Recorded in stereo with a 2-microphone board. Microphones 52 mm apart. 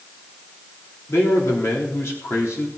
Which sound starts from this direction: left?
A man speaking, at 1.1 s.